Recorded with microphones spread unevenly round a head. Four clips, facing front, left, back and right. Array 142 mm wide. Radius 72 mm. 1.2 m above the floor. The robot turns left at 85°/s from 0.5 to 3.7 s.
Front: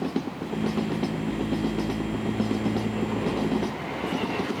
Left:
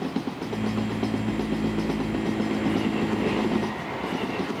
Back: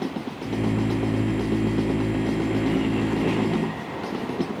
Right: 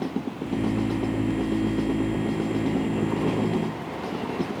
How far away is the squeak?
I don't hear a squeak.